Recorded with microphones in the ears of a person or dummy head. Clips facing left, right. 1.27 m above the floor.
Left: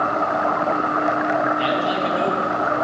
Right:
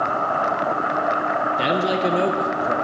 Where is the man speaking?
70° right (ahead or behind), 1.2 m.